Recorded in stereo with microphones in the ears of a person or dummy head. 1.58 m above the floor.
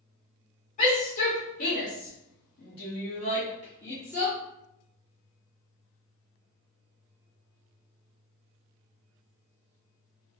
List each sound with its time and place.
0.8 s a shout: 40° left (ahead or behind), 1.6 m; by 4.4 s 10° left (ahead or behind), 1.1 m